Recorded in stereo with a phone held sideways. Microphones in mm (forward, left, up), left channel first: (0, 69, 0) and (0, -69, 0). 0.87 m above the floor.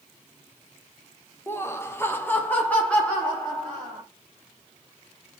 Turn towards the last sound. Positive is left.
turn(degrees=5)  # may be behind; listen again after turning